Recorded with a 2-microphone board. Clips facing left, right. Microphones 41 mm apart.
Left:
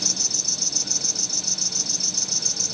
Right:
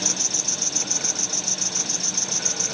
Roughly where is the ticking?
No ticking in this recording.